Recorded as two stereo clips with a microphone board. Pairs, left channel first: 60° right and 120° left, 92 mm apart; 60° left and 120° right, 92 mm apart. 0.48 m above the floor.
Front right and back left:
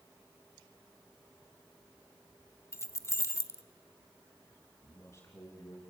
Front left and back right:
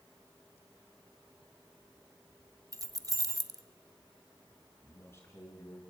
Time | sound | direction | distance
2.7 | keys jangling | 100° right | 0.8 m
4.8 | a man speaking | straight ahead | 6 m